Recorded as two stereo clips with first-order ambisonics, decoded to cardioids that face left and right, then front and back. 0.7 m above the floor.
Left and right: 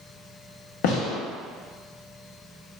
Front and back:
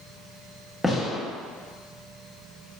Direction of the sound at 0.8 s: 90° left.